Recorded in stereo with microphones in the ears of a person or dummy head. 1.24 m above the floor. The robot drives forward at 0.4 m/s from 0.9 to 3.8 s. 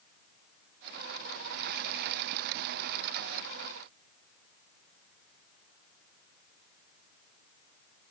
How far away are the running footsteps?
I don't hear running footsteps.